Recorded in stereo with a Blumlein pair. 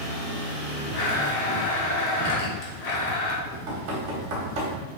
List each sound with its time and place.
0.9 s a blender: 40° left, 0.9 m
3.5 s knocking: 45° right, 1.0 m